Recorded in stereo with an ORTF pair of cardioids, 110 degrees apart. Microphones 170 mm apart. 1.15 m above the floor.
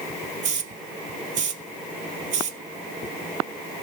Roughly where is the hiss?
Ahead right.